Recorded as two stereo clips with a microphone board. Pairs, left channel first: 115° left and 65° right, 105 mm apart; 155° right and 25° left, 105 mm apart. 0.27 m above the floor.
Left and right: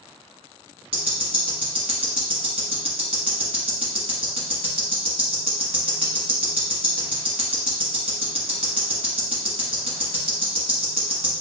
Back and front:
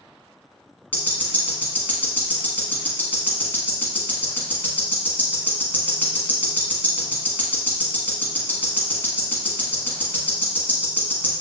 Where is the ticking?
85° right, 1.2 m.